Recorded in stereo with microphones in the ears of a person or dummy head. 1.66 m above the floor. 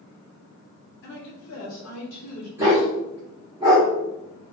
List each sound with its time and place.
1.0 s a woman speaking: 55° left (ahead or behind), 1.1 m; by 2.5 s 40° left (ahead or behind), 1.0 m
2.6 s a dog barking: 20° right (ahead or behind), 1.7 m